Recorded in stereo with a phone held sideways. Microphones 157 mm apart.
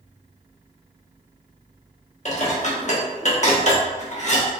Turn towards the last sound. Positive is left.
turn(degrees=50)  # may be behind; listen again after turning